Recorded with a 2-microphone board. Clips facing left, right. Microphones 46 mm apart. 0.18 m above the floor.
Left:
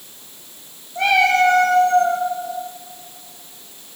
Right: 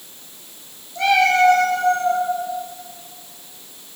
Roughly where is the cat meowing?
Left.